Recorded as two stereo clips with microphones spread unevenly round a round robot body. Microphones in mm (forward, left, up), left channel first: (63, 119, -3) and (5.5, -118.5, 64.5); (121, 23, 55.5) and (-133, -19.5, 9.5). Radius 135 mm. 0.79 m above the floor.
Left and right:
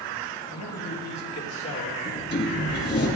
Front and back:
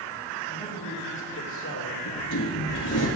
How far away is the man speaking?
About 4.5 m.